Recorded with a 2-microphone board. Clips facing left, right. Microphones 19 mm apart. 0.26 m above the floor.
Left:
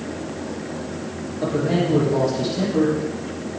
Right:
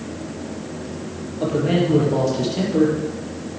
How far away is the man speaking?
About 6 m.